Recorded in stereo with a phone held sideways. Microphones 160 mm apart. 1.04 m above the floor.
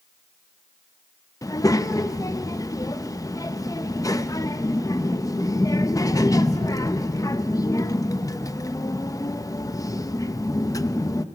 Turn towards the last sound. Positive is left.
turn(degrees=20)  # may be behind; listen again after turning